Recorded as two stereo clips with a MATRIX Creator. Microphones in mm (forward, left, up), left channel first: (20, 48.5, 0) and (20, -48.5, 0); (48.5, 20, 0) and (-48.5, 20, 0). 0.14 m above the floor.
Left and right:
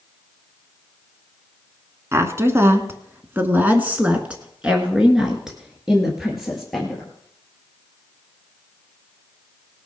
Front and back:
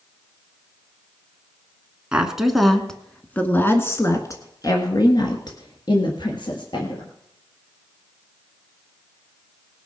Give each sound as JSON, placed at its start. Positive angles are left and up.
{"t": 2.1, "sound": "a woman speaking", "azimuth_deg": -110, "distance_m": 1.4}